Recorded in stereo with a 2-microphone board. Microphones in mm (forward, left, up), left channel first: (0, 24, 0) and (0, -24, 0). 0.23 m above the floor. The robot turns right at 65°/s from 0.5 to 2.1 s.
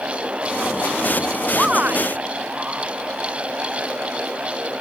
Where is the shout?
165° right; by 2.2 s 130° right.